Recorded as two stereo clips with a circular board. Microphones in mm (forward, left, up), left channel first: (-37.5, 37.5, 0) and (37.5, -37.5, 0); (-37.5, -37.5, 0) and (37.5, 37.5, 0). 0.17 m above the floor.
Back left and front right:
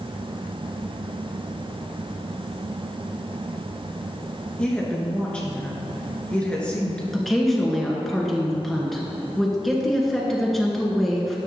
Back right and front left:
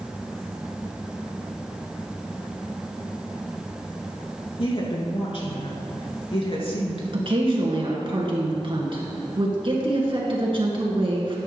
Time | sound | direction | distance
4.6 | a woman speaking | 145° right | 2.5 m
7.1 | a woman speaking | 50° left | 2 m